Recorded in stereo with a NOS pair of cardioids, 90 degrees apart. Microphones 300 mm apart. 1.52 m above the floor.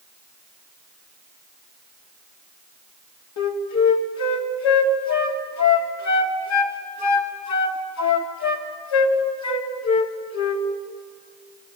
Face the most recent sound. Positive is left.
turn(degrees=60)